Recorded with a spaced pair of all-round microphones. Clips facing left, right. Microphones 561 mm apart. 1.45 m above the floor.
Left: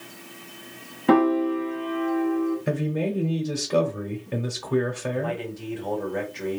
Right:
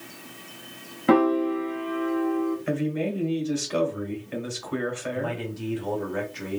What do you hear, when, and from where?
1.1 s a piano: centre (ahead or behind), 1.0 m
2.7 s a man speaking: 60° left (ahead or behind), 1.0 m
5.1 s a man speaking: 30° right (ahead or behind), 1.3 m